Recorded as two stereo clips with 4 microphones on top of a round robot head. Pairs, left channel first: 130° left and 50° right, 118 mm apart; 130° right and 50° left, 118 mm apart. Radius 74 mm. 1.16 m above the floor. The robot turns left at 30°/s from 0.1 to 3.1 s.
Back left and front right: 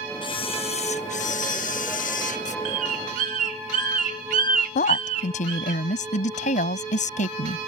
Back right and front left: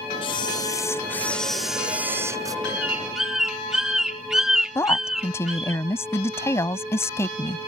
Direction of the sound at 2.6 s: 25° right.